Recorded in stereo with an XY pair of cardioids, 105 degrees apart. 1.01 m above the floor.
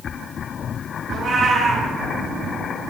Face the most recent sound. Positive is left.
turn(degrees=-55)